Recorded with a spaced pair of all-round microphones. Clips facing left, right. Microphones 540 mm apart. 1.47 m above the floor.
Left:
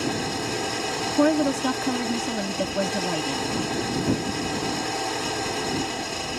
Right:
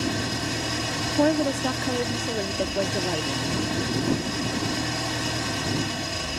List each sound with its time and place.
0.0 s an engine running: 35° right (ahead or behind)
1.2 s a woman speaking: 30° left (ahead or behind)